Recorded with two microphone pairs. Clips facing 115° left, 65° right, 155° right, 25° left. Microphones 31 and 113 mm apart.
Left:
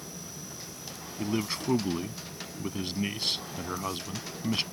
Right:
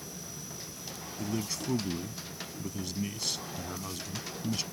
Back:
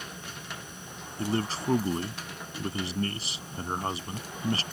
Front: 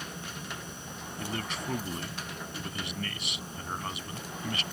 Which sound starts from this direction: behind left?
A man speaking, at 1.2 s.